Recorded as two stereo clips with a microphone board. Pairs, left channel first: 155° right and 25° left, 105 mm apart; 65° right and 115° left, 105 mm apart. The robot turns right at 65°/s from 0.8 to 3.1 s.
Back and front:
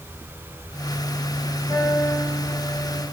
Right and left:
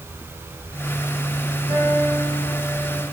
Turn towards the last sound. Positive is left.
turn(degrees=-130)